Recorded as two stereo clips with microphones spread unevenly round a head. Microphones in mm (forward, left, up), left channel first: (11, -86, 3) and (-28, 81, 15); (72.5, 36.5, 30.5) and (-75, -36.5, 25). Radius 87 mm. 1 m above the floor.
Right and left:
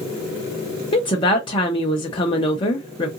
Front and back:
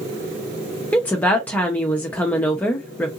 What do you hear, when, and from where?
0.9 s a woman speaking: 50° right, 0.8 m